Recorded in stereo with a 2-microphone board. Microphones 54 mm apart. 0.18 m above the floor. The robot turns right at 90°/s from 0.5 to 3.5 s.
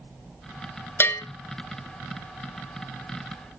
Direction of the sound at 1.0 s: 45° left (ahead or behind).